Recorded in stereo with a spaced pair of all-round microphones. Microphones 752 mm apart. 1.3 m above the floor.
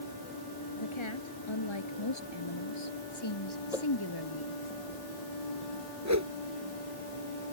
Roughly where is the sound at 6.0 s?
Right.